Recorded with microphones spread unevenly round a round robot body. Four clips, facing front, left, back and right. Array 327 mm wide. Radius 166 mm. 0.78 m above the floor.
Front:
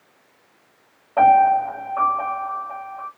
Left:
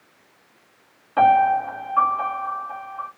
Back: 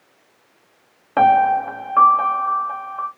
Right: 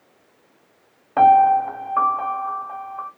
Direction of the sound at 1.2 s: 165° right.